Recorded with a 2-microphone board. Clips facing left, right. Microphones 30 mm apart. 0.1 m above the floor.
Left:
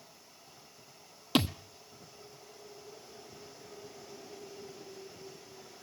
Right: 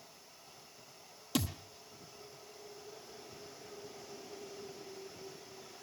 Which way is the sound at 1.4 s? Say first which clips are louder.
Left 7 dB; 50° left (ahead or behind).